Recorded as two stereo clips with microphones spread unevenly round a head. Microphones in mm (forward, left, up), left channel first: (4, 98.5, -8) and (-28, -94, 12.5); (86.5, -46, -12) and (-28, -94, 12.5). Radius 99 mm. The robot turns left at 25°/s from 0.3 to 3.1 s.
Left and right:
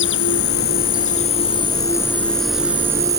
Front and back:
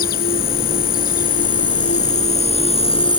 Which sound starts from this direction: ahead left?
An insect, at 0.0 s.